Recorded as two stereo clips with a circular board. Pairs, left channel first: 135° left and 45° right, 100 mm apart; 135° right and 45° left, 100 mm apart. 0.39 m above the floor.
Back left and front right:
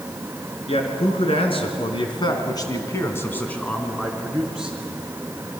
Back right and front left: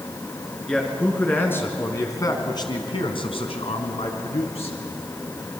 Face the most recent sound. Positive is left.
turn(degrees=-125)